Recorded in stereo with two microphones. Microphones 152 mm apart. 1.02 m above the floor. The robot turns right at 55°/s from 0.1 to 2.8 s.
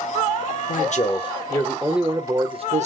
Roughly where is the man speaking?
Behind left.